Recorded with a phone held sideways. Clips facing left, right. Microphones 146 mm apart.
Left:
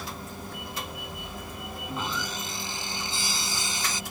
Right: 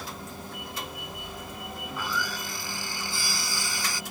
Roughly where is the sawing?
Left.